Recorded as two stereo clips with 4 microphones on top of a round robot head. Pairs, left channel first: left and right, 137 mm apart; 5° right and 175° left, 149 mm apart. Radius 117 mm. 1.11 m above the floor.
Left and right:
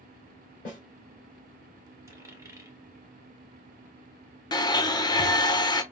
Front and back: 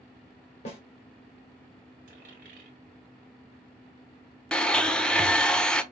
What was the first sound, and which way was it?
A snare drum, 40° left.